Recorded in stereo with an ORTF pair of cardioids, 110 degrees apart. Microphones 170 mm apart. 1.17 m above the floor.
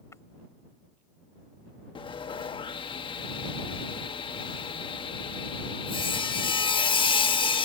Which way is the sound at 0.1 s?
15° left.